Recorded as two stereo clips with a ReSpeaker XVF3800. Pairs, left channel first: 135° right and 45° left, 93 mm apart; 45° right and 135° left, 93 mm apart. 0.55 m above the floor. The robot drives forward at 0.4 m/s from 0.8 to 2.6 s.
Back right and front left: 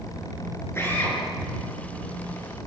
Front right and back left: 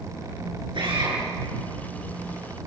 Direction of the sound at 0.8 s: 160° left.